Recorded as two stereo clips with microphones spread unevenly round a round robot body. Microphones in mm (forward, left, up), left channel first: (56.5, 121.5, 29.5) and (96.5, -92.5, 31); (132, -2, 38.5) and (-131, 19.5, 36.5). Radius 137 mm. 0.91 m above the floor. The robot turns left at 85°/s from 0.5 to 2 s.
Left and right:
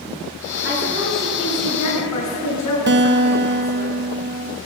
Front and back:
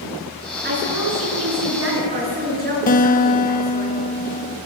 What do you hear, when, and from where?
0.6 s a woman speaking: 125° right, 10 m; by 3.9 s 120° left, 10 m
2.9 s a guitar: 60° right, 1.3 m